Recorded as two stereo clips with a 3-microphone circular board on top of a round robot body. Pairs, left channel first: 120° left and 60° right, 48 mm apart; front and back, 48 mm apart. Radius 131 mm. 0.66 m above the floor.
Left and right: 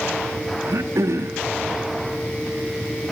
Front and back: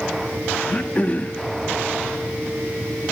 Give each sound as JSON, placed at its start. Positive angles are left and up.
{"t": 0.7, "sound": "throat clearing", "azimuth_deg": -60, "distance_m": 0.7}